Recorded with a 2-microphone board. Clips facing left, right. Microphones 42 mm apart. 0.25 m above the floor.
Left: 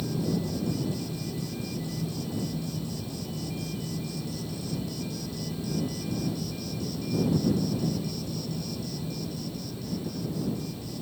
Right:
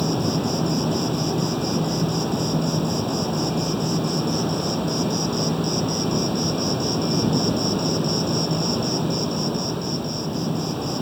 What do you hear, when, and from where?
0.0 s an insect: 90° right